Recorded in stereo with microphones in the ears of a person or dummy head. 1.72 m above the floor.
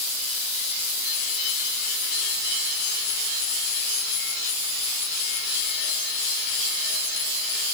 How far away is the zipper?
No zipper in this recording.